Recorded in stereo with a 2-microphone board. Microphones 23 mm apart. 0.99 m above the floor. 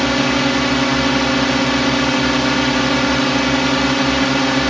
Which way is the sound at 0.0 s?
5° left (ahead or behind).